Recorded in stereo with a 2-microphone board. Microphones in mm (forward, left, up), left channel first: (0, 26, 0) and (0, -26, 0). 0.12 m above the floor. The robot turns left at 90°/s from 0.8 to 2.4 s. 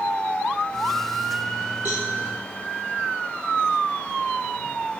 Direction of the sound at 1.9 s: 35° right (ahead or behind).